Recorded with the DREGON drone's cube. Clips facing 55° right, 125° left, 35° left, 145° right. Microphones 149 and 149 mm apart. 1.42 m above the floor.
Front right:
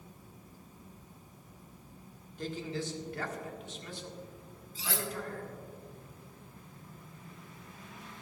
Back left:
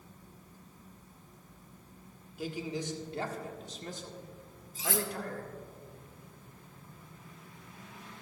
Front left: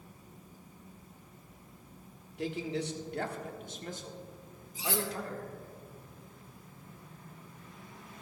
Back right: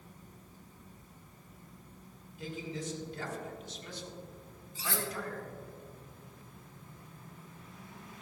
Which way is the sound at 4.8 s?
100° left.